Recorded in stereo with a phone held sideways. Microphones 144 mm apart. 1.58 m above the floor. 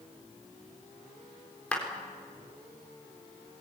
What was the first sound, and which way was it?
A clap, 10° left (ahead or behind).